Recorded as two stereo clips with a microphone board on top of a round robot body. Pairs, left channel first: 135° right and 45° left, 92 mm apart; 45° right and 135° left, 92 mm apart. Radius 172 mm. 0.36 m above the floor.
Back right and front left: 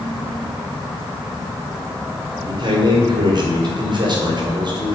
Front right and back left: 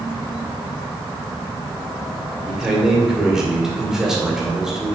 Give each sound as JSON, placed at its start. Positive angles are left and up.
{"t": 2.5, "sound": "a man speaking", "azimuth_deg": 50, "distance_m": 2.5}